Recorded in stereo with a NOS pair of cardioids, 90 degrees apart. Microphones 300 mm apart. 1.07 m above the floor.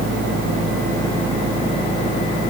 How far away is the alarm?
No alarm in this recording.